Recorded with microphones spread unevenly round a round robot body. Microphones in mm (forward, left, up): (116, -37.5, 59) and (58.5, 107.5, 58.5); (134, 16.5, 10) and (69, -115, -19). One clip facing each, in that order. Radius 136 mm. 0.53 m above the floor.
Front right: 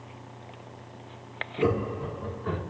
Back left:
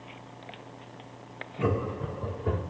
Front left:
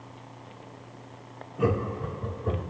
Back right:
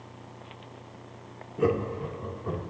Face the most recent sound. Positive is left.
turn(degrees=140)